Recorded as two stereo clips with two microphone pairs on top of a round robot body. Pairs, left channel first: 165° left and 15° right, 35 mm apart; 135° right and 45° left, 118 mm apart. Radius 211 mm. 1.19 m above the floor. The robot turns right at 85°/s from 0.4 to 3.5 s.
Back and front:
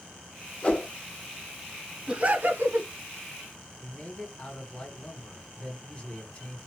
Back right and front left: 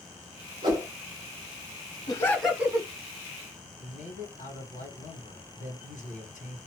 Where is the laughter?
75° right, 1.0 m; by 2.9 s 10° right, 1.0 m.